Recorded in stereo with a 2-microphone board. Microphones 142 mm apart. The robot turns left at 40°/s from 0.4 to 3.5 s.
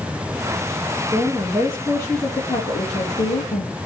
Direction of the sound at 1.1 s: 155° right.